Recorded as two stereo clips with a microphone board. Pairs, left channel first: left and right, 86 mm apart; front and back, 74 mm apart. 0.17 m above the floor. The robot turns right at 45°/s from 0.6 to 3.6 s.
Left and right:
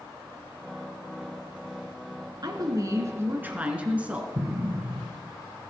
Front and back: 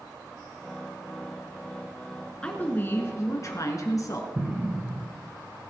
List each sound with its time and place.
2.4 s a woman speaking: 70° right, 2 m; by 4.2 s 20° right, 2 m
4.3 s an explosion: 130° right, 1.9 m